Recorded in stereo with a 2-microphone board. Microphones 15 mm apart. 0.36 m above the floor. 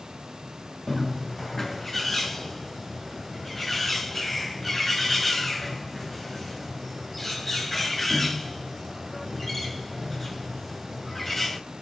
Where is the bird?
5° left (ahead or behind), 2 m.